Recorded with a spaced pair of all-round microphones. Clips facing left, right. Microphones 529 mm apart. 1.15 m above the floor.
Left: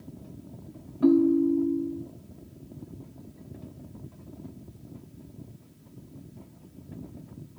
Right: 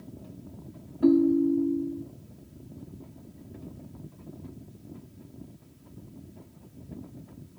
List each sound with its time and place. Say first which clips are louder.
1.0 s a ringtone: left 1 dB; 30° left (ahead or behind), 0.7 m